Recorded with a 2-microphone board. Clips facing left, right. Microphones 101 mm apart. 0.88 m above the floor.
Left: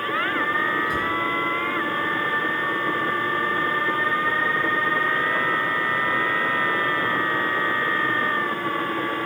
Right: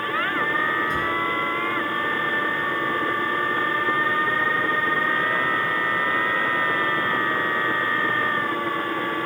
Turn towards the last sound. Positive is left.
turn(degrees=5)  # may be behind; listen again after turning